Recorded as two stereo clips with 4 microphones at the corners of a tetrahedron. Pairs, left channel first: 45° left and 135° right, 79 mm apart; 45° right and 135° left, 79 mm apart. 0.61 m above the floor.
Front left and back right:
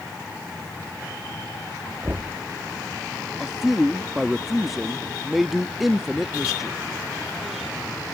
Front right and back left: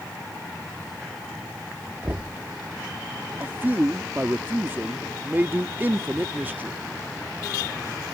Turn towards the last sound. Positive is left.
turn(degrees=145)